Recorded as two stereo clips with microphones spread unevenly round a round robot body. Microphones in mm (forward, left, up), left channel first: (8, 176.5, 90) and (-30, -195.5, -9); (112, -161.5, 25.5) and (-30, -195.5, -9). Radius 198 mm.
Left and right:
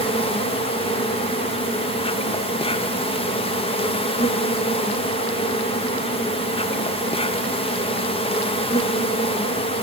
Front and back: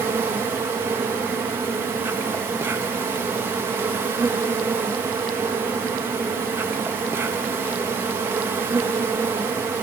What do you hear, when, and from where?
0.0 s an insect: 175° left, 1.3 m